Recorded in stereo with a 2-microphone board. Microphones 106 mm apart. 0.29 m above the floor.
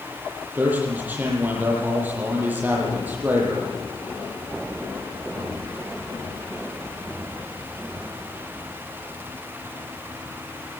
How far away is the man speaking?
About 8 m.